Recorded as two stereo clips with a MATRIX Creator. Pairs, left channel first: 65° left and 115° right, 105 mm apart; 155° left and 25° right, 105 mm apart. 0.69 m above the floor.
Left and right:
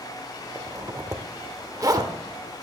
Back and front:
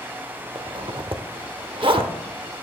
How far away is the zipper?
About 0.8 m.